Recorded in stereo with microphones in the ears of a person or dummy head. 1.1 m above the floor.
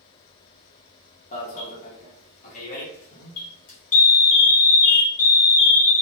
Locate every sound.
1.3 s an alarm: 40° left (ahead or behind), 0.9 m